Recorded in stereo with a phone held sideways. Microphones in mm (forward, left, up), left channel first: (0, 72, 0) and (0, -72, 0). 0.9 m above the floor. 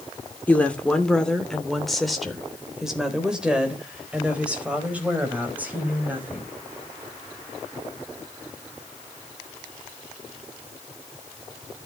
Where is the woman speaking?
10° left (ahead or behind), 3 m; by 6.5 s 10° right (ahead or behind), 6 m.